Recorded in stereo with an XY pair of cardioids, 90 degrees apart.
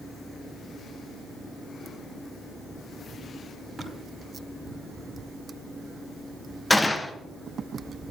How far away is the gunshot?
About 1.6 m.